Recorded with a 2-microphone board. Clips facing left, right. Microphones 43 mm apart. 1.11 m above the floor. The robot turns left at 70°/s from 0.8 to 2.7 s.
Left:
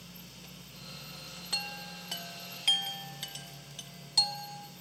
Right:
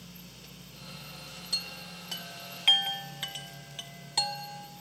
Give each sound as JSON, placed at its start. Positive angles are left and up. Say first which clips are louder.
{"t": 1.5, "sound": "a chime", "louder": "left 1 dB", "side_deg": 45, "distance_m": 1.1}